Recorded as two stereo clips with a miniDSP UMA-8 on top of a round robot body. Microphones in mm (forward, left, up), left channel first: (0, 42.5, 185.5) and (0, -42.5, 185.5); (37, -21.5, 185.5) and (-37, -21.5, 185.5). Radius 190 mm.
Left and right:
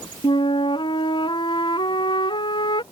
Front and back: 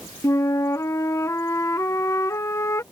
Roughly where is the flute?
Ahead left.